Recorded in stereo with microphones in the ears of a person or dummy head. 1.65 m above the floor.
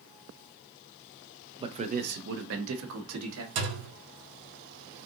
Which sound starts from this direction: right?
A thud, at 3.5 s.